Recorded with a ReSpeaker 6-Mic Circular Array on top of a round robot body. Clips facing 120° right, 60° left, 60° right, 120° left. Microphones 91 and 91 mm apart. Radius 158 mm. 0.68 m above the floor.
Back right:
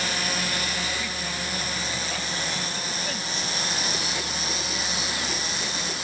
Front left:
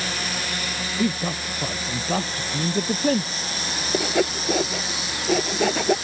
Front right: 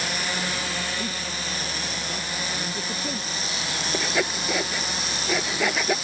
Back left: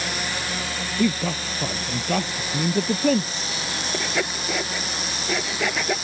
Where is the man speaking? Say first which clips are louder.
Front left 8 dB, back left 9 dB; 110° left.